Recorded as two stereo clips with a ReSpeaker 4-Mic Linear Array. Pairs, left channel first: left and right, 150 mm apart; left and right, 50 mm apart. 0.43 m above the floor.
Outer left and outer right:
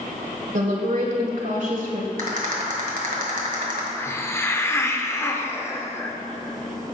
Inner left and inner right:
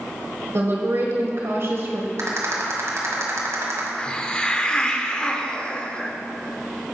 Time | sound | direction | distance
0.5 | a woman speaking | 60° right (ahead or behind) | 1.6 m
2.2 | a rattle | 65° right (ahead or behind) | 1.6 m
4.0 | a hiss | 15° left (ahead or behind) | 0.6 m